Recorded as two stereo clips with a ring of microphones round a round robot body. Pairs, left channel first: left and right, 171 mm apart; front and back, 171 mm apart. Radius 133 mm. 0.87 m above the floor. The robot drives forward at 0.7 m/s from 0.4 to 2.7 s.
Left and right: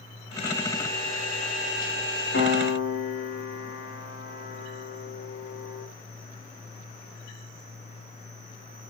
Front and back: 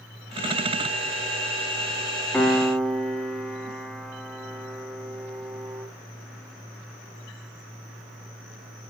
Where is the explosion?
No explosion in this recording.